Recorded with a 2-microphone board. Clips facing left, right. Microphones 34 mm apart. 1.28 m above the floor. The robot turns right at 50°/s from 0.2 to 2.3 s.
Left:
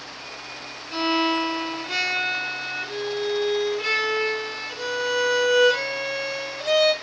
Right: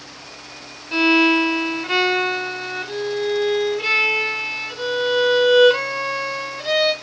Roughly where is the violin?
Right.